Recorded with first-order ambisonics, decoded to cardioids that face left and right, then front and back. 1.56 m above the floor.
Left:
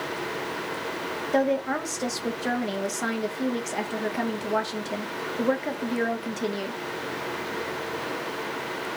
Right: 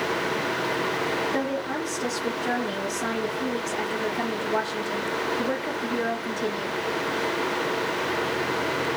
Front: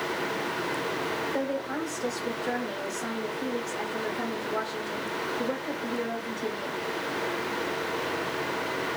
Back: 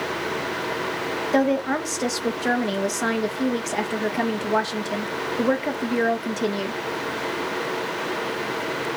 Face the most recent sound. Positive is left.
turn(degrees=160)